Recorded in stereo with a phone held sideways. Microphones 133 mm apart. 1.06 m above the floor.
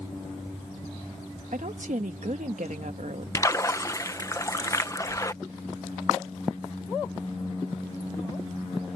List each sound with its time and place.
1.5 s a woman speaking: 70° right (ahead or behind)
3.4 s a splash: 25° left (ahead or behind)